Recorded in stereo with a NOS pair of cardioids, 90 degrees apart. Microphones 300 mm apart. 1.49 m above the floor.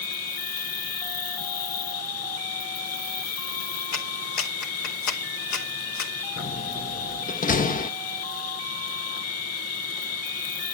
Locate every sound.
0.0 s an insect: 50° left, 1.3 m
3.9 s a clap: 60° left, 3 m
6.4 s a door slam: 25° left, 1.1 m